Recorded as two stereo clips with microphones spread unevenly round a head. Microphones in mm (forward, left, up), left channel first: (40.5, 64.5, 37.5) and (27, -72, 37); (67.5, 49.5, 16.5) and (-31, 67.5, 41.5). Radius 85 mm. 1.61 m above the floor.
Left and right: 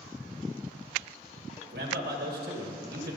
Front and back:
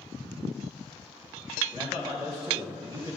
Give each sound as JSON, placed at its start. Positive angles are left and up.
{"t": 1.6, "sound": "a man speaking", "azimuth_deg": -125, "distance_m": 1.4}